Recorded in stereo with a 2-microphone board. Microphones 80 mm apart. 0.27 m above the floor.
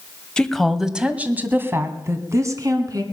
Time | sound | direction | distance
0.4 | a woman speaking | 10° left (ahead or behind) | 1.2 m